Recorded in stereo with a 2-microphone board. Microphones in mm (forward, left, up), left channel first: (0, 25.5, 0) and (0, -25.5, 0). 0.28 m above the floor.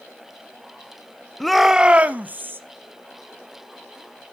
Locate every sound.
1.4 s a shout: 5° left (ahead or behind), 0.9 m; by 2.6 s 40° right (ahead or behind), 1.8 m